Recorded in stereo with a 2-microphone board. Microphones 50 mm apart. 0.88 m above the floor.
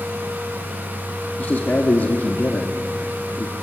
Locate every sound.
1.4 s a man speaking: 35° left (ahead or behind), 2 m